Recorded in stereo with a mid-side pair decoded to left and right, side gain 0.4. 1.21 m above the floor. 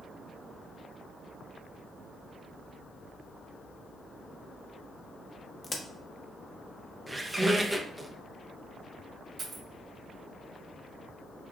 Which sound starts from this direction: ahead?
A squeak, at 7.1 s.